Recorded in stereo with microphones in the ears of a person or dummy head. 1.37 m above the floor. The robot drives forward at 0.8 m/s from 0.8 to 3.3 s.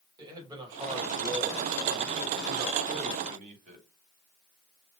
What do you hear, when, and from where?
0.2 s a man speaking: 25° right (ahead or behind), 4 m; by 3.9 s 50° right (ahead or behind), 2.5 m